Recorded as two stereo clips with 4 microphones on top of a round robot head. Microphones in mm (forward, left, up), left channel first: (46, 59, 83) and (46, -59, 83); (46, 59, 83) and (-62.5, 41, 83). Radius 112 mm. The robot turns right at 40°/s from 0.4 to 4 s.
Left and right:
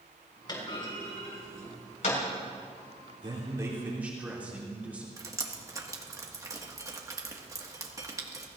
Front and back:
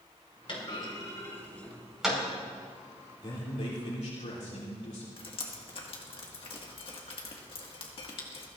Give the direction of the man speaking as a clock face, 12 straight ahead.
1 o'clock.